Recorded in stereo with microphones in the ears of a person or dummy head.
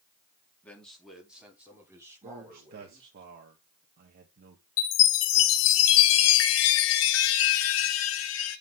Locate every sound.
0.6 s a man speaking: 5° left (ahead or behind), 3 m; by 3.2 s 25° right (ahead or behind), 6 m
2.2 s a man speaking: 50° right (ahead or behind), 1.6 m
4.8 s a chime: 70° left (ahead or behind), 1.3 m